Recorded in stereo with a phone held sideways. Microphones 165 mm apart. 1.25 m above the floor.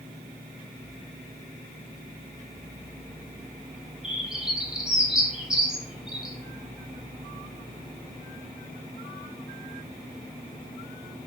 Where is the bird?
5° right (ahead or behind), 0.6 m.